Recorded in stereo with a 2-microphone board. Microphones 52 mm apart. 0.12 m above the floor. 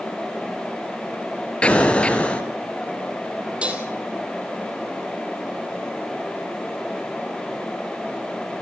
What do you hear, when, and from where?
1.6 s an explosion: 20° left (ahead or behind), 2.5 m
3.6 s dishes clattering: 20° right (ahead or behind), 2.5 m